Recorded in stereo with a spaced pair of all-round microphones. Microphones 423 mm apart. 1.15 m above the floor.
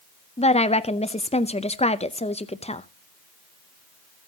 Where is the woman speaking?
15° left (ahead or behind), 0.6 m.